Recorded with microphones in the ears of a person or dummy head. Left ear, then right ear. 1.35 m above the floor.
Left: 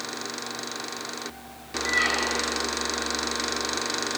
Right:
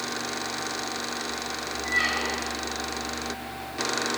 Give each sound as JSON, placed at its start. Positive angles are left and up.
{"t": 1.9, "sound": "a squeak", "side_deg": 15, "distance_m": 2.0}